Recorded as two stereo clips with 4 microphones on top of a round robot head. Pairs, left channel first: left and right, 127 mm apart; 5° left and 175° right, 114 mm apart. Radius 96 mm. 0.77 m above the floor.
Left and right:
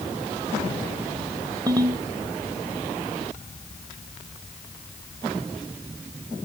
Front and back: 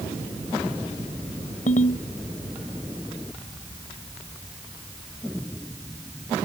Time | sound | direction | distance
1.7 | a ringtone | 30° right | ?